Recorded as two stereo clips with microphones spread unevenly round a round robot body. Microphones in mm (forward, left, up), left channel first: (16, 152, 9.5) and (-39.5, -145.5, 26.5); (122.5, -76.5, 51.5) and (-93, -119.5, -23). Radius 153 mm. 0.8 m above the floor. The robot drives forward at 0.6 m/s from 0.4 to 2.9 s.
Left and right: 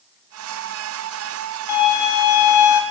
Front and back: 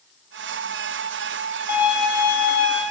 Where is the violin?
40° left, 0.9 m; by 2.8 s 90° left, 0.6 m.